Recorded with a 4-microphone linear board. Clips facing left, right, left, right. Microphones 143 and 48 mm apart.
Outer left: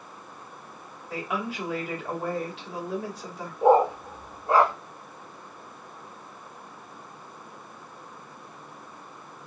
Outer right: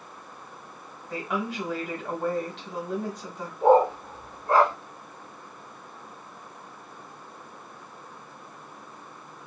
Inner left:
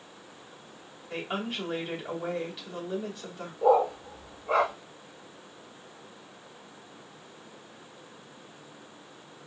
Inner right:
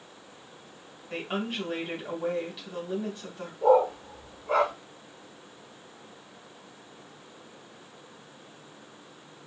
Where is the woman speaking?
5° left (ahead or behind), 2 m.